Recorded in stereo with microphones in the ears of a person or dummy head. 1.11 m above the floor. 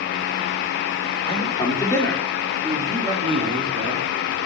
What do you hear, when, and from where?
1.2 s a man speaking: 30° left (ahead or behind), 3.5 m; by 4.1 s 45° right (ahead or behind), 3 m